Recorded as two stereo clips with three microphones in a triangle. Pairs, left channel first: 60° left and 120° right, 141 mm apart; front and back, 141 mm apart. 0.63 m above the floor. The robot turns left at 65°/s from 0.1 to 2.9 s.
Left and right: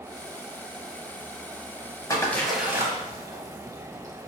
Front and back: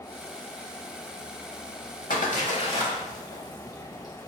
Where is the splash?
5° right, 0.8 m; by 4.3 s 55° right, 0.8 m.